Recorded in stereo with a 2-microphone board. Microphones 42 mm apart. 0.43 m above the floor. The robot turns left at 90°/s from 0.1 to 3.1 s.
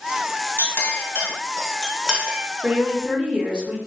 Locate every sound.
0.6 s a clink: 70° left (ahead or behind), 1.4 m; by 2.4 s 55° right (ahead or behind), 1.4 m
2.6 s a woman speaking: 105° right, 1.4 m; by 3.8 s 150° right, 1.4 m